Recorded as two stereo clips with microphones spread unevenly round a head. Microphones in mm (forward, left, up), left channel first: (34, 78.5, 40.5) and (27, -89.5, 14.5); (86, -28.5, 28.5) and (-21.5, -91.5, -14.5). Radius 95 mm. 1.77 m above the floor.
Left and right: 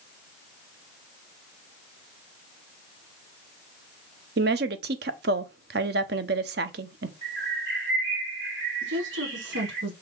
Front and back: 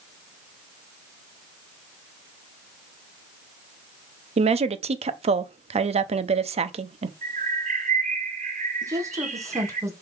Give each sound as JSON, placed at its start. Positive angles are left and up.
{"t": 4.4, "sound": "a woman speaking", "azimuth_deg": -110, "distance_m": 0.7}
{"t": 7.2, "sound": "a bird", "azimuth_deg": -125, "distance_m": 2.5}
{"t": 8.8, "sound": "a woman speaking", "azimuth_deg": -85, "distance_m": 2.0}